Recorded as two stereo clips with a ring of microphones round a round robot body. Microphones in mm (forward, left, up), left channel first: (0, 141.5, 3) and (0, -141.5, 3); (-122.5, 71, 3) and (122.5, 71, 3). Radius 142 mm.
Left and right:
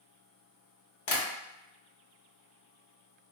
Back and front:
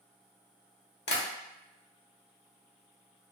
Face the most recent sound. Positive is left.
turn(degrees=130)